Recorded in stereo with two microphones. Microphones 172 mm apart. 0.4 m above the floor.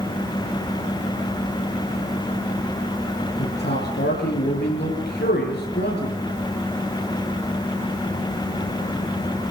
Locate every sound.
3.4 s a man speaking: 80° left, 7 m